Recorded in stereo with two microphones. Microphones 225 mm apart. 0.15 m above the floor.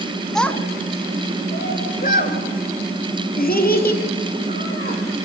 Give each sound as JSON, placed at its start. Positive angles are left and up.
{"t": 0.3, "sound": "a child speaking", "side_deg": 0, "distance_m": 0.8}